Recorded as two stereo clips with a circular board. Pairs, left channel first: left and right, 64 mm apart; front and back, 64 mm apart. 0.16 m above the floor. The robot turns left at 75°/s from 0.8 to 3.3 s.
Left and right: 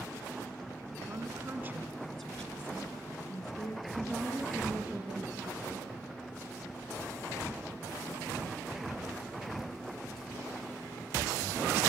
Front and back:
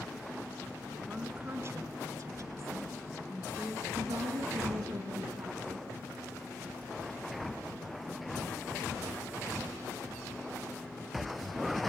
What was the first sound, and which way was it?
A woman speaking, 110° right.